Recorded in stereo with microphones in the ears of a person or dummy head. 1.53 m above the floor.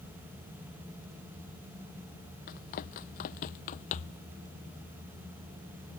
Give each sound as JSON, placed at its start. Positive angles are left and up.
{"t": 2.5, "sound": "running footsteps", "side_deg": 45}